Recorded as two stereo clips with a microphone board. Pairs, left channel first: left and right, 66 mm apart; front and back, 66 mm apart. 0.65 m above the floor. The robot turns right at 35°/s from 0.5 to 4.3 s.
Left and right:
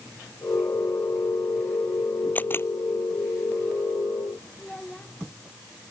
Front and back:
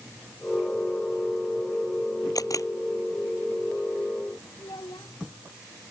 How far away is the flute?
I don't hear a flute.